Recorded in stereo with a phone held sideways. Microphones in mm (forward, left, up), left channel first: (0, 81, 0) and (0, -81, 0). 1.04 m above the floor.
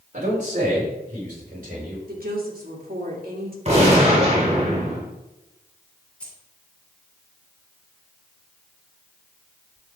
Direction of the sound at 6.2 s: 5° left (ahead or behind).